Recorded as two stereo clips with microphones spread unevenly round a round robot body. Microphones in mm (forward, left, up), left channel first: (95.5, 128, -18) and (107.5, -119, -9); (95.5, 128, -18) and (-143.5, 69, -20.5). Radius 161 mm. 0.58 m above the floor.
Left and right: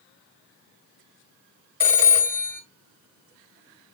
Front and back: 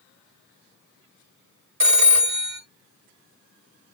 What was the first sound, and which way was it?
A phone ringing, 155° right.